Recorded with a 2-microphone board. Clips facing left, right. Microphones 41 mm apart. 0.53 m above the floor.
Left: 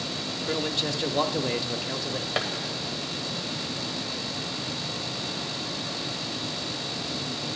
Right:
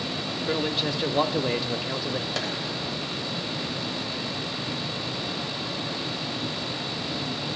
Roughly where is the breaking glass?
I don't hear breaking glass.